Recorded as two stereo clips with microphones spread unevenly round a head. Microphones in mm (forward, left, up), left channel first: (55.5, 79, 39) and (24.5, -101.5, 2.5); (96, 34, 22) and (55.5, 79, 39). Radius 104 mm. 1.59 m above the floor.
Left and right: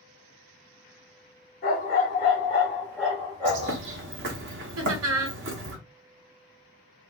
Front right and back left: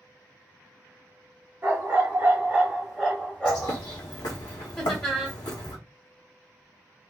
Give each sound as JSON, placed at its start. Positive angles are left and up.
{"t": 1.6, "sound": "a dog barking", "azimuth_deg": 100, "distance_m": 1.7}
{"t": 3.5, "sound": "a bird", "azimuth_deg": -75, "distance_m": 0.9}
{"t": 4.8, "sound": "laughter", "azimuth_deg": -130, "distance_m": 0.9}